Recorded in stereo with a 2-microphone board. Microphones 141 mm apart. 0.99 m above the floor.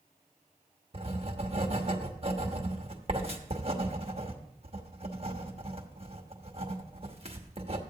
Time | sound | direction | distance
0.9 | writing | 45° right (ahead or behind) | 1.0 m